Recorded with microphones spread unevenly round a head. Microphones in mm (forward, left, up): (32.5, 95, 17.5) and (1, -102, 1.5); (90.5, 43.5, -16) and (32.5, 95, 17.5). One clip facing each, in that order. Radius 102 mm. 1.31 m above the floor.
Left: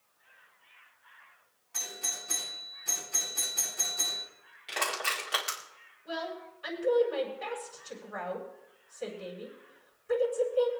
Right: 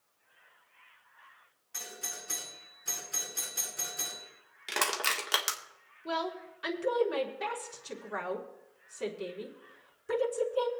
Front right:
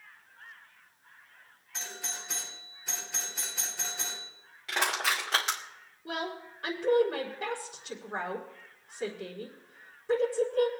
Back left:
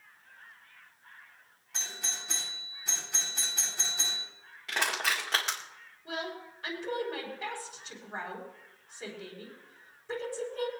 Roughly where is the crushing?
Behind right.